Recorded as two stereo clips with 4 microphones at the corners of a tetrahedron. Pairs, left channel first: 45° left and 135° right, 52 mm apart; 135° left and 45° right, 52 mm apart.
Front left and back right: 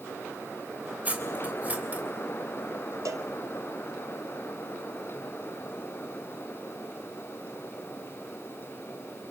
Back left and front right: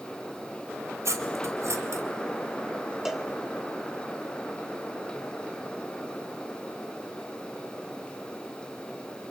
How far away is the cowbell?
About 1.7 m.